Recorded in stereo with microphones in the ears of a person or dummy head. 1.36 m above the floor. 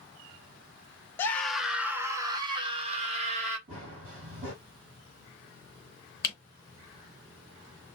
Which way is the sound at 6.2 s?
15° left (ahead or behind).